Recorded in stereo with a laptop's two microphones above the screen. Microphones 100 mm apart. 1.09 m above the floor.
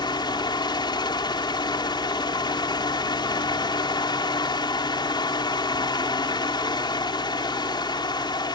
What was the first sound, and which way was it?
A fan, 50° left (ahead or behind).